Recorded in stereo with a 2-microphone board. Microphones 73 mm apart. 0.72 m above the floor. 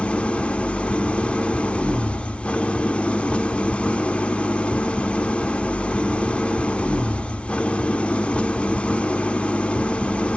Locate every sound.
0.0 s an engine running: 15° left (ahead or behind), 0.9 m